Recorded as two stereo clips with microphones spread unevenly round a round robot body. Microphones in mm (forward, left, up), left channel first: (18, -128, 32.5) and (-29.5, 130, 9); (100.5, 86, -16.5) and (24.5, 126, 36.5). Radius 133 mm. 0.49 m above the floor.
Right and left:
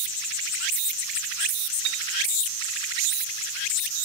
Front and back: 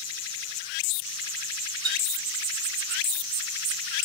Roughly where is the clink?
Behind left.